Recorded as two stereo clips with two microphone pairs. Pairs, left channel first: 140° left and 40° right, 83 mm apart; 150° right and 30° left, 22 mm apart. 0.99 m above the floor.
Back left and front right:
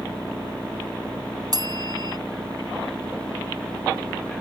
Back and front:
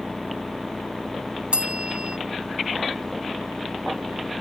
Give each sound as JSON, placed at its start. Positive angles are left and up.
{"t": 1.5, "sound": "a bell", "azimuth_deg": -5}